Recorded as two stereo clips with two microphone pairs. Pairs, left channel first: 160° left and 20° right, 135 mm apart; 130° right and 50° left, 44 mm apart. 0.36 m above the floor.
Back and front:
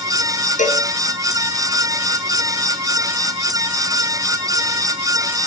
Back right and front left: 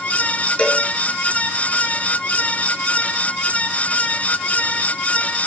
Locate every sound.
0.6 s a cowbell: 170° left, 4 m